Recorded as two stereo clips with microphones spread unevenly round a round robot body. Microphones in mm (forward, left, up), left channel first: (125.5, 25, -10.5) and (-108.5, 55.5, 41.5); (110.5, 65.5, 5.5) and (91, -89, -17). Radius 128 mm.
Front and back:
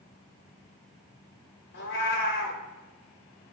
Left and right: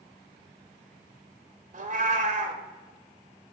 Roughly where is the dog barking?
No dog barking in this recording.